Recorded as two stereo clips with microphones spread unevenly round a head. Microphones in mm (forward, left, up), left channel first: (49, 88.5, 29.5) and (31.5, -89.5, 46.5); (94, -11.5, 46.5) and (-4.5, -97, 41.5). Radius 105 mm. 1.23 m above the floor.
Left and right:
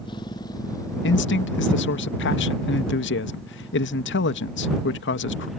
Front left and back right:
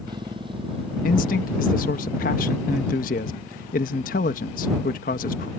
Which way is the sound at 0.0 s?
155° left.